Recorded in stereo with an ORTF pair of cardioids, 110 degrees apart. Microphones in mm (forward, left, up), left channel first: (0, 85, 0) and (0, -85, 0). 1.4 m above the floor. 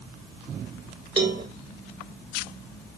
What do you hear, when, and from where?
1.2 s a cowbell: 35° right, 1.7 m